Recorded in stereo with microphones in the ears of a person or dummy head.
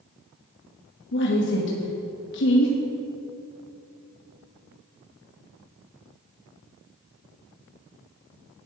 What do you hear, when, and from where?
1.1 s a woman speaking: 60° left (ahead or behind), 2 m